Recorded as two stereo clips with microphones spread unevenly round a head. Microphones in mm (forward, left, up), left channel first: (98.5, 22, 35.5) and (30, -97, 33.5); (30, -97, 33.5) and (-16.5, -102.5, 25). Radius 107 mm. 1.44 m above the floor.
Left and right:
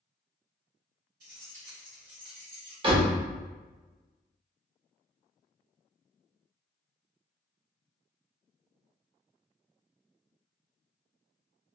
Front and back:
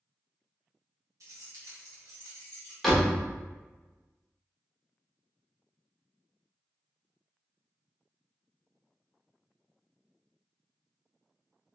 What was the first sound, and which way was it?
Keys jangling, 160° right.